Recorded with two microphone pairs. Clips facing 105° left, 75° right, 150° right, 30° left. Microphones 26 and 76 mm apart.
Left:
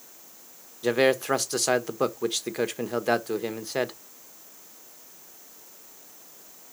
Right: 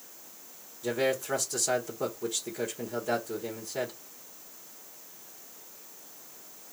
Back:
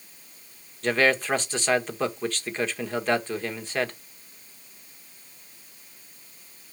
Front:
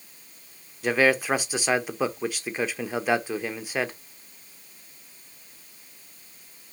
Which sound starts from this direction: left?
A man speaking, at 0.8 s.